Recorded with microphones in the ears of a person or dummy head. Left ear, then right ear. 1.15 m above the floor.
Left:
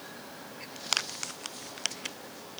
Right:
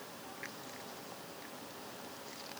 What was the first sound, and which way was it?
Only background noise.